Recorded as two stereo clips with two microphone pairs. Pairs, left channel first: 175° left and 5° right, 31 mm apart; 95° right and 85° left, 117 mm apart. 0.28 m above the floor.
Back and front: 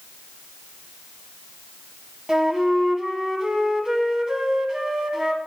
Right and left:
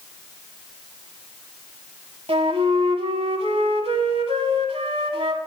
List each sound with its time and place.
2.3 s a flute: 65° left, 0.9 m